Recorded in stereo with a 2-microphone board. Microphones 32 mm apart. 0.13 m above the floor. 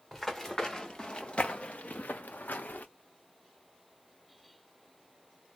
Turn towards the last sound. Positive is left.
turn(degrees=70)  # may be behind; listen again after turning